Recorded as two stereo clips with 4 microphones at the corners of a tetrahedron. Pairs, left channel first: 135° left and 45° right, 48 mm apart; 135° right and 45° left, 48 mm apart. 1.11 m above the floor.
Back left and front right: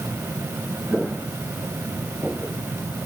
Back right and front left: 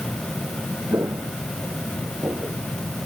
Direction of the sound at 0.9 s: 30° left.